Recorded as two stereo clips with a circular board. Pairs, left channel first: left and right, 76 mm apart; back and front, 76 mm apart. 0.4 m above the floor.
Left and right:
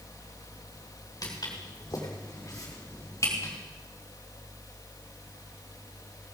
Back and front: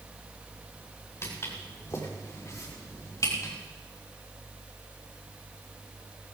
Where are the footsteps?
125° left, 4.5 m; by 3.5 s 140° left, 5 m.